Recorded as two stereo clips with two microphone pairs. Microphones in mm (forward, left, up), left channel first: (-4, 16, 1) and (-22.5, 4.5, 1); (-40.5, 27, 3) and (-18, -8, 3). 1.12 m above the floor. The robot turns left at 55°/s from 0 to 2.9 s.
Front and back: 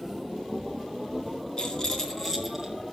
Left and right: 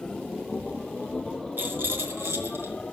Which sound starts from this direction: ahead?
A rattle, at 1.6 s.